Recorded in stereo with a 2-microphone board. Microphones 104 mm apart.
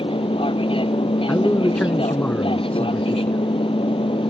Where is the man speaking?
10° left (ahead or behind).